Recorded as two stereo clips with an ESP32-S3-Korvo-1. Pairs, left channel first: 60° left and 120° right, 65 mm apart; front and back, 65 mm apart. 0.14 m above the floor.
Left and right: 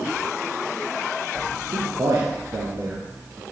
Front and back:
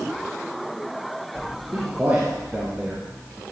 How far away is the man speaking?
About 3 m.